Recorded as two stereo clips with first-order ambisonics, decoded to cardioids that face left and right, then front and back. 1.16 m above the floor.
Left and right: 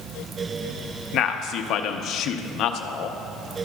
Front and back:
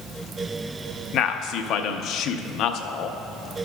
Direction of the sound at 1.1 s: 45° left.